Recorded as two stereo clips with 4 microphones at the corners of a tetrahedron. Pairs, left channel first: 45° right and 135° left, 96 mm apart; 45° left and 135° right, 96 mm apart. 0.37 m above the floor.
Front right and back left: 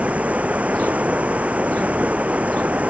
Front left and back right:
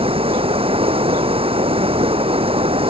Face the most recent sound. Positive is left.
turn(degrees=-150)